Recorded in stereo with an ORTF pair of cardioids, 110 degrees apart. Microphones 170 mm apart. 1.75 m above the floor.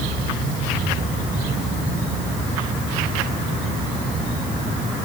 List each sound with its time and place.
Only background noise.